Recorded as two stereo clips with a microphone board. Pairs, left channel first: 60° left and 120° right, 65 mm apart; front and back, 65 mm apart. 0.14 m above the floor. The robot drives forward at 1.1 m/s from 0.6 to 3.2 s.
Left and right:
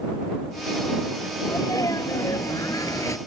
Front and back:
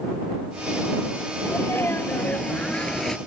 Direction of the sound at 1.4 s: 45° left.